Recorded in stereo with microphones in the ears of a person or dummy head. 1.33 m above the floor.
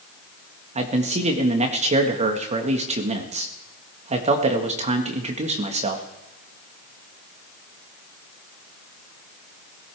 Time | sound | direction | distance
0.8 | a man speaking | 35° right (ahead or behind) | 1.5 m